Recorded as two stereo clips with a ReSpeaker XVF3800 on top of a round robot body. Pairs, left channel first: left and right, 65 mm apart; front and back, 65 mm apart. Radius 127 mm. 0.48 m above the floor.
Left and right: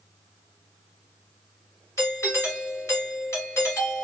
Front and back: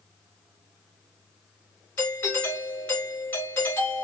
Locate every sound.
2.0 s a doorbell: 50° left, 3 m